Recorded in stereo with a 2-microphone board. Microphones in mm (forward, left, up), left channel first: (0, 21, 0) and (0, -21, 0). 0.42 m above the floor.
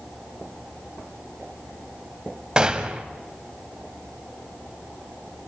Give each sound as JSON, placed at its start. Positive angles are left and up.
{"t": 2.6, "sound": "a gunshot", "side_deg": -20, "distance_m": 1.3}